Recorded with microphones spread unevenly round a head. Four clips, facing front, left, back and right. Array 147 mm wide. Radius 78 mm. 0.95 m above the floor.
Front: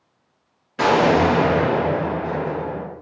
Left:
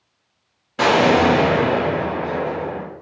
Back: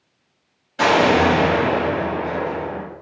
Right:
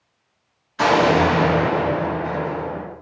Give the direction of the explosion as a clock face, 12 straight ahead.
10 o'clock.